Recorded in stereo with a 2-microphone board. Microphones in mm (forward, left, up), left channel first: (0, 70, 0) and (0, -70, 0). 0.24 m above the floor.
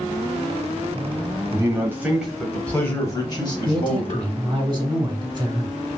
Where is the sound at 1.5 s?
30° right (ahead or behind), 1.0 m; by 4.3 s 50° left (ahead or behind), 1.4 m.